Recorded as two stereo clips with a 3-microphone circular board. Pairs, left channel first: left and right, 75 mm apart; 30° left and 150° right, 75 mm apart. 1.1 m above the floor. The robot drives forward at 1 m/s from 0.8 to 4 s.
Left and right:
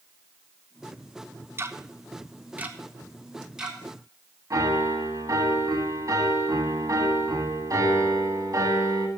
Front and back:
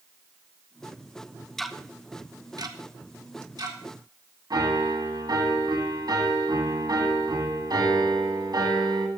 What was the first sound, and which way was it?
Ticking, 55° right.